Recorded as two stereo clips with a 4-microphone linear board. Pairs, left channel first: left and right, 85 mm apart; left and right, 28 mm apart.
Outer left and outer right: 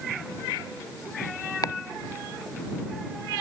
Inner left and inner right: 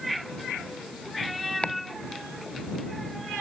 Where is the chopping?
50° left (ahead or behind).